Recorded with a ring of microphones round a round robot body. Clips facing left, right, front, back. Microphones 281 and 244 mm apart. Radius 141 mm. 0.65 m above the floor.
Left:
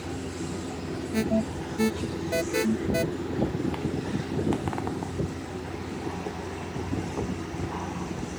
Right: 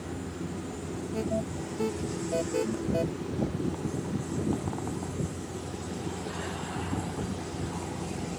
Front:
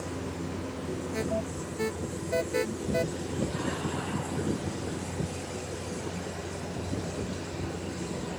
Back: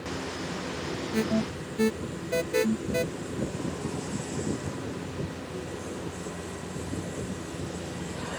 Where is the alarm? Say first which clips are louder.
Left 6 dB, back 8 dB; 135° left.